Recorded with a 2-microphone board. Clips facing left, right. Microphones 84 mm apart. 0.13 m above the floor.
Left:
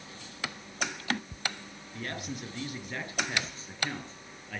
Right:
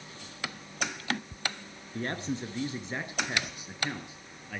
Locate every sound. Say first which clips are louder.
1.9 s a man speaking: right 5 dB; 30° right (ahead or behind), 2.5 m; by 4.6 s 5° right (ahead or behind), 3 m